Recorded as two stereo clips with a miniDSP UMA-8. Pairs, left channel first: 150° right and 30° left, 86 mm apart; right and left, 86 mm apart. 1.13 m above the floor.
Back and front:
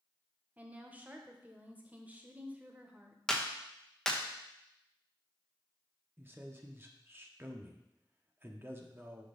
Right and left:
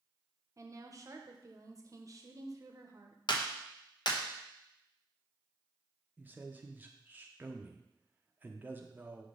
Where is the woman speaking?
90° left, 0.8 m.